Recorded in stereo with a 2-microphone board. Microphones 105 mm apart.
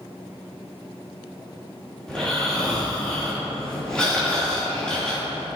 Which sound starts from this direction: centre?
Snoring, at 2.1 s.